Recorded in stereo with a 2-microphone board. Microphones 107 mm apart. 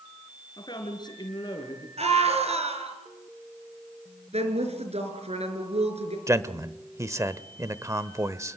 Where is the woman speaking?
80° right, 5 m.